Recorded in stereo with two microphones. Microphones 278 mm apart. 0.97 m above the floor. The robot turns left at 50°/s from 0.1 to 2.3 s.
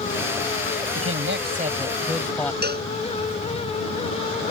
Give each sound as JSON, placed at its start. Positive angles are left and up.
{"t": 0.9, "sound": "a man speaking", "azimuth_deg": -120}
{"t": 2.6, "sound": "a cowbell", "side_deg": -35}